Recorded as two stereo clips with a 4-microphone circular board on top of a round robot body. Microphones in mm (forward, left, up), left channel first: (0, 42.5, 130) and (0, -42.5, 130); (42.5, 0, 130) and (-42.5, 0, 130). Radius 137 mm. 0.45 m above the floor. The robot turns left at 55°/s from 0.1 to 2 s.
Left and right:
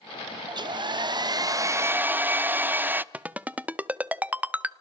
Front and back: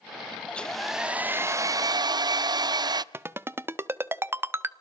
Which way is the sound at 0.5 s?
70° right.